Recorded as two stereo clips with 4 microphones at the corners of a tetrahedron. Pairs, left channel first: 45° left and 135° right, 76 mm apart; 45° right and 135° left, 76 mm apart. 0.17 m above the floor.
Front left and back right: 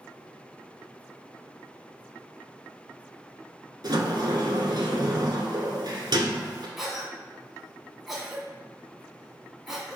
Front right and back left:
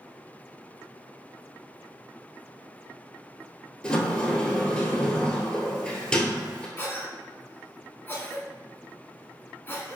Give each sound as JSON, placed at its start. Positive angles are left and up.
{"t": 3.8, "sound": "a sliding door", "azimuth_deg": -120, "distance_m": 1.1}
{"t": 6.8, "sound": "a cough", "azimuth_deg": -55, "distance_m": 1.5}